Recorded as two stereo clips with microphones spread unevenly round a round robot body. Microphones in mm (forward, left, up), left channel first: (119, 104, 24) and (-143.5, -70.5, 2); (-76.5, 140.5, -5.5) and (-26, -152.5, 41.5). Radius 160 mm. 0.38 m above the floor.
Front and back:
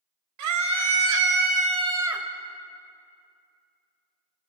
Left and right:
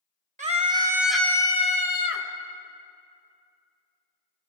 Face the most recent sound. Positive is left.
turn(degrees=125)